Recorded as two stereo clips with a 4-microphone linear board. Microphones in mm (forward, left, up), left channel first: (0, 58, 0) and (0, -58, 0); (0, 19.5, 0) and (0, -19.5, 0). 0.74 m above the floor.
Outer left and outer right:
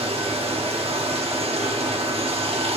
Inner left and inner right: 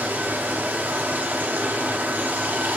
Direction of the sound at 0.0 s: 55° right (ahead or behind).